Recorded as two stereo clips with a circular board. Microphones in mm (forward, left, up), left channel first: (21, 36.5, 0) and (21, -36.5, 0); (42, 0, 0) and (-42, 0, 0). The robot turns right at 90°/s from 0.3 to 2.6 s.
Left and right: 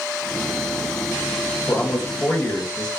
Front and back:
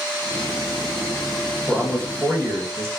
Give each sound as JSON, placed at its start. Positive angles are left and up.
{"t": 1.7, "sound": "a man speaking", "azimuth_deg": 75, "distance_m": 1.0}